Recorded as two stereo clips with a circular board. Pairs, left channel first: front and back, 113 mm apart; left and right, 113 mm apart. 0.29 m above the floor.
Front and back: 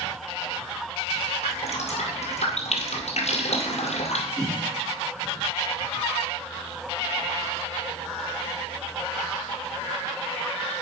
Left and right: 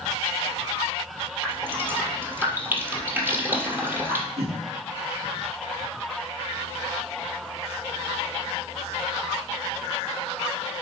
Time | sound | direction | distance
1.4 | dripping | 15° right | 1.8 m
4.4 | a whoosh | 65° right | 3 m